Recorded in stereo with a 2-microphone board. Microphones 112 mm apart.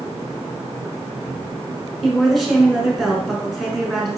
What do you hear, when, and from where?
2.0 s a woman speaking: centre (ahead or behind), 1.1 m